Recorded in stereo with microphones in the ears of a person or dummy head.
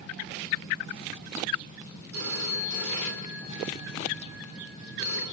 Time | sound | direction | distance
2.1 | a phone ringing | 85° right | 8 m